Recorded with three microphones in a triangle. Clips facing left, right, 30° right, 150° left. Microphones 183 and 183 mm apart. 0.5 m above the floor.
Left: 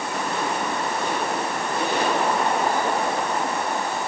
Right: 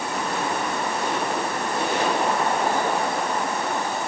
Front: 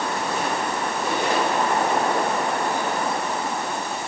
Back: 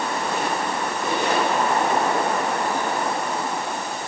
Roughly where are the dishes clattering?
No dishes clattering in this recording.